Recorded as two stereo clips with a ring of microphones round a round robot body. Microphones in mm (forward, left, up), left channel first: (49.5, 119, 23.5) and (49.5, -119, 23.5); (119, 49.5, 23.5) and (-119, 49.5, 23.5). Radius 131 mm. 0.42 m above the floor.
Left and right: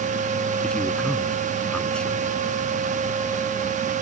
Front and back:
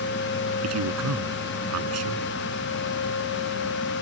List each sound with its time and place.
0.6 s a man speaking: 175° left